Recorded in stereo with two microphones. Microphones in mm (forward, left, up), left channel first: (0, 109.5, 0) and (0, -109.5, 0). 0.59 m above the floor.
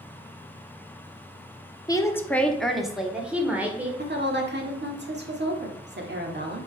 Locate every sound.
1.9 s a woman speaking: 15° left (ahead or behind), 0.7 m; by 3.9 s 10° right (ahead or behind), 1.9 m
4.0 s a woman speaking: 50° right (ahead or behind), 1.6 m